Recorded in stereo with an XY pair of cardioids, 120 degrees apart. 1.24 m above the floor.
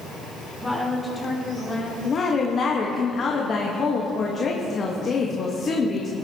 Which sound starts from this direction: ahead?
A woman speaking, at 0.6 s.